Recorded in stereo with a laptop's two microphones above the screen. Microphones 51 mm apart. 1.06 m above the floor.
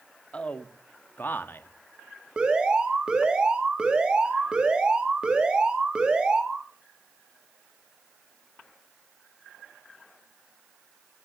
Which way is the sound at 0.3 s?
25° left (ahead or behind).